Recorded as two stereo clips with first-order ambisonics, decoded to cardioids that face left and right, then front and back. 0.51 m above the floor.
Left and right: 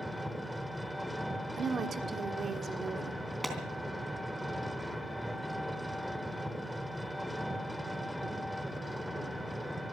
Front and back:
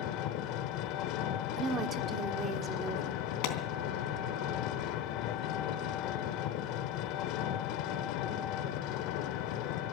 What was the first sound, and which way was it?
An engine running, straight ahead.